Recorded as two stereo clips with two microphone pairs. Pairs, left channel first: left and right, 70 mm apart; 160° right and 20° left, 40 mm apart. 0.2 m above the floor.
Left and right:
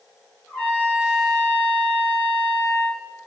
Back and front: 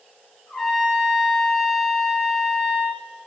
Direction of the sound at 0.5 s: 115° left.